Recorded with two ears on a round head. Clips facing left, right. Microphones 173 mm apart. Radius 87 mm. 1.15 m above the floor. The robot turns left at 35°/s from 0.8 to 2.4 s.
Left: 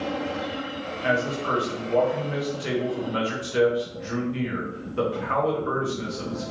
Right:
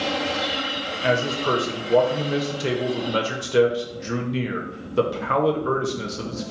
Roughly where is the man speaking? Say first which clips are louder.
Right 3 dB; ahead right.